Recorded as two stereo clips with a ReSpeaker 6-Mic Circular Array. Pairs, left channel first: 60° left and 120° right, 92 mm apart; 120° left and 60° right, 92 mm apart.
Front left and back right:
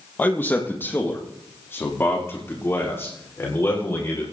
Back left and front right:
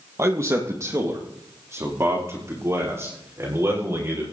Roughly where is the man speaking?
Ahead.